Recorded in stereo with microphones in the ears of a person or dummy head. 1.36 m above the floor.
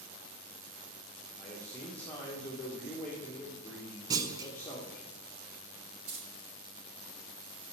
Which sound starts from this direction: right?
Keys jangling, at 6.1 s.